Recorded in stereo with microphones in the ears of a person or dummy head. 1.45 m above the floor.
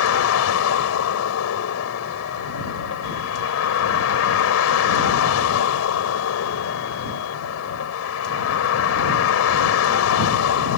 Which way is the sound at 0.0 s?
80° left.